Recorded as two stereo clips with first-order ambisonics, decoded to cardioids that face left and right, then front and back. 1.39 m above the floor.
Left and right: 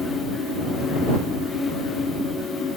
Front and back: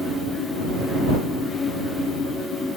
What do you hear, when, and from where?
Only background noise.